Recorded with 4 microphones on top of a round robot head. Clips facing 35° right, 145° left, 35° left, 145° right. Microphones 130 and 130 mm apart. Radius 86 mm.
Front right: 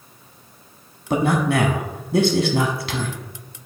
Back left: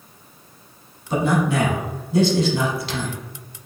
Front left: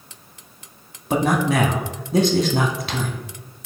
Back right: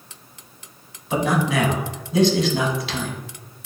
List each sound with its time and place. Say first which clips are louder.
1.1 s a man speaking: front right 1 dB, front left 2 dB; 5° right, 1.1 m